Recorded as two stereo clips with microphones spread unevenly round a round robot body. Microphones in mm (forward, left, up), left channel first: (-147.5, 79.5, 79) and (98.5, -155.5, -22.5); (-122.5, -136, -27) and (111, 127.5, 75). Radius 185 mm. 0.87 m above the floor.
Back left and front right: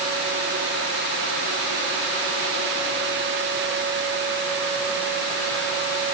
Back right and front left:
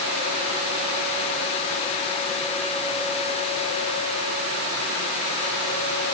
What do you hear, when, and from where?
Only background noise.